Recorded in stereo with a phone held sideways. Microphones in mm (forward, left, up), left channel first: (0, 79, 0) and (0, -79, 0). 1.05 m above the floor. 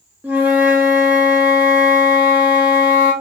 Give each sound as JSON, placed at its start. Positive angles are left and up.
{"t": 0.2, "sound": "a flute", "side_deg": -10, "distance_m": 1.2}